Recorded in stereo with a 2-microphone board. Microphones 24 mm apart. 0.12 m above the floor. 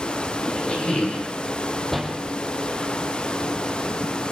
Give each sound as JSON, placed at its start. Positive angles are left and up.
{"t": 0.4, "sound": "a squeak", "side_deg": 55, "distance_m": 1.6}
{"t": 1.9, "sound": "a door slam", "side_deg": 5, "distance_m": 3.5}